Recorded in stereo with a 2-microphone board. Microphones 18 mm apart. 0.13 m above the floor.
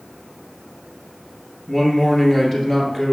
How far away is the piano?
No piano in this recording.